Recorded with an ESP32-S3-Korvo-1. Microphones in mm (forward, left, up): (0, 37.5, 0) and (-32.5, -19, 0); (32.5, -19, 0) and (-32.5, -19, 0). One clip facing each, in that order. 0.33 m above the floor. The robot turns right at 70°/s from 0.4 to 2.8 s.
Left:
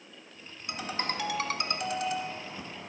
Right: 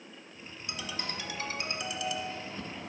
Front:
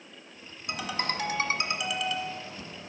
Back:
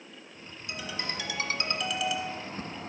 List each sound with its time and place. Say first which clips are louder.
0.7 s a ringtone: left 5 dB, front 5 dB; straight ahead, 1.1 m; by 2.9 s 150° left, 1.1 m